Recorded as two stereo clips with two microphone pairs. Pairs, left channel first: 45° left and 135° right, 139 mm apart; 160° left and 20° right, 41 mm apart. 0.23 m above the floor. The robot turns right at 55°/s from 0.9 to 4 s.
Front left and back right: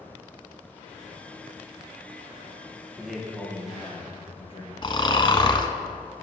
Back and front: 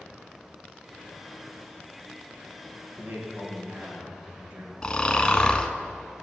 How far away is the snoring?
About 0.7 m.